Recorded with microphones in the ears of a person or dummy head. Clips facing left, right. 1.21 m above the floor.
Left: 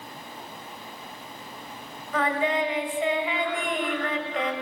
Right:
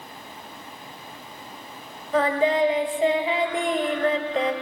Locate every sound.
2.1 s singing: 30° right (ahead or behind), 1.9 m